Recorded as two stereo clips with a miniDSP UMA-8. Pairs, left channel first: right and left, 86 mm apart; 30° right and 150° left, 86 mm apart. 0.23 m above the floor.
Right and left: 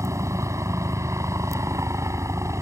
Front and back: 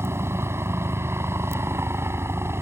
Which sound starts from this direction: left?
A helicopter, at 0.0 s.